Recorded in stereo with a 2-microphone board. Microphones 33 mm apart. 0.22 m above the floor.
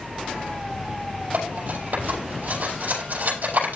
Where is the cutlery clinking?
65° right (ahead or behind), 5.5 m.